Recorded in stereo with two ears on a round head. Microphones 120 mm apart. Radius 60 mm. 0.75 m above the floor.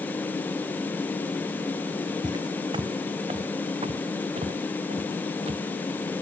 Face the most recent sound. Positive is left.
turn(degrees=-45)  # may be behind; listen again after turning